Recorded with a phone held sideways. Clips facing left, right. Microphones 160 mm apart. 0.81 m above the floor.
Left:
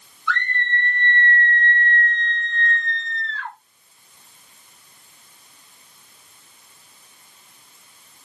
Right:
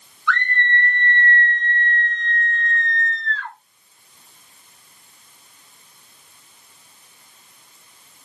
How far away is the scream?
About 1.5 m.